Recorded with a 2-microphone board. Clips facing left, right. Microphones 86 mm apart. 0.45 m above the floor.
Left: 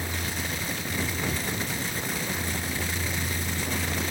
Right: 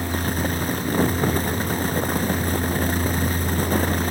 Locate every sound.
Only background noise.